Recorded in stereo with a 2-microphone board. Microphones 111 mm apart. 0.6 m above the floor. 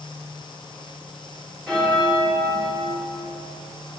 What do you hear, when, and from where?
1.7 s a bell: centre (ahead or behind), 1.3 m